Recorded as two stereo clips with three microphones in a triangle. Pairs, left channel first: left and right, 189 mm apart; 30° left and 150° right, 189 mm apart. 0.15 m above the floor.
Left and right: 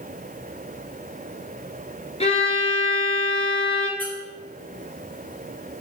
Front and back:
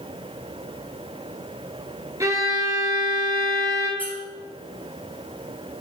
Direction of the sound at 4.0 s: 30° right.